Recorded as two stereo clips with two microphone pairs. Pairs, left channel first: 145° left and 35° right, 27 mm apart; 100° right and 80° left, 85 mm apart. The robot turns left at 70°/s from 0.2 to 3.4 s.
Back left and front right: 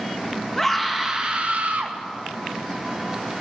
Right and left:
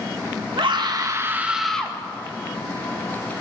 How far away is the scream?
About 2 m.